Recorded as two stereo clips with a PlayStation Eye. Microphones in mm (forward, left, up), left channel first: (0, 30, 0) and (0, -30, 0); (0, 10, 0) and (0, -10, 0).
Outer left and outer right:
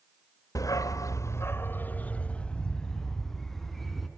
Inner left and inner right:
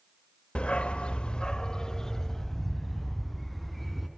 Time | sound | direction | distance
0.6 | a dog barking | 65° left (ahead or behind) | 1.3 m